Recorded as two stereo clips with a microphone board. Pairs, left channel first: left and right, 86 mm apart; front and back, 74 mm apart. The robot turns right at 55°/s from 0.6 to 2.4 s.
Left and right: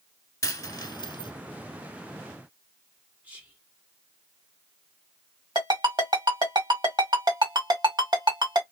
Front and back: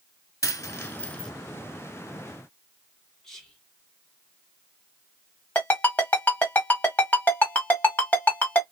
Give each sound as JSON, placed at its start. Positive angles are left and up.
{"t": 0.4, "sound": "a dropped coin", "azimuth_deg": 40, "distance_m": 0.8}
{"t": 3.2, "sound": "whispering", "azimuth_deg": -70, "distance_m": 1.3}
{"t": 5.5, "sound": "a ringtone", "azimuth_deg": -65, "distance_m": 1.8}